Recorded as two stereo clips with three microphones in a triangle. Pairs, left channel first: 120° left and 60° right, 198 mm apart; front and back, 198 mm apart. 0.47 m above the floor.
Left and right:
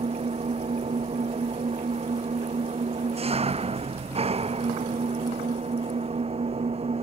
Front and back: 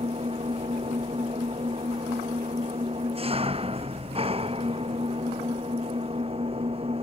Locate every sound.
0.0 s an engine running: 120° right